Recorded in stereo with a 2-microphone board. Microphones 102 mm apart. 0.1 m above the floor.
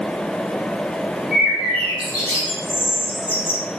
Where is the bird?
10° right (ahead or behind), 1.2 m.